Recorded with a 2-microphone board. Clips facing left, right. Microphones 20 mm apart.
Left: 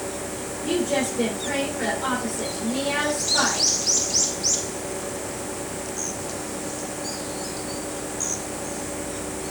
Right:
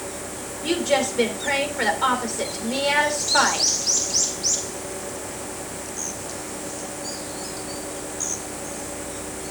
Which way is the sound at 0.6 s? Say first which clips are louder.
Right 2 dB; 50° right (ahead or behind).